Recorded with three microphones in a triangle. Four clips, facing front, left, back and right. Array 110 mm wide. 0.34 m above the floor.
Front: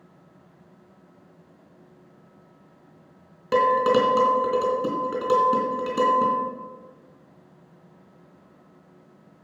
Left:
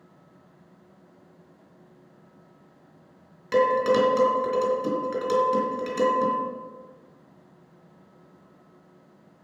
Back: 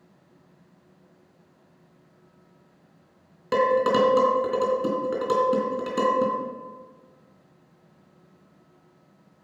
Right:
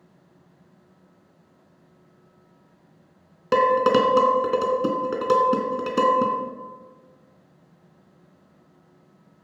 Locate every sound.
3.5 s dishes clattering: 90° right, 2.5 m